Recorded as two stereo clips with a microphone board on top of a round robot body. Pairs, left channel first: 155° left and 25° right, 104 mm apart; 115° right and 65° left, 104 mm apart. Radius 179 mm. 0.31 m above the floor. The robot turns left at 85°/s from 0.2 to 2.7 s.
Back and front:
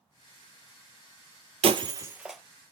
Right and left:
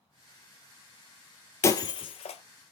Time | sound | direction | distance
1.6 | breaking glass | 50° right | 0.8 m